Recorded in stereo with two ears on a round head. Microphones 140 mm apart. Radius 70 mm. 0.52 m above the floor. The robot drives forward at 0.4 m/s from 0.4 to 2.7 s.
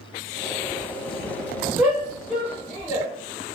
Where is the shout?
10° right (ahead or behind), 1.9 m.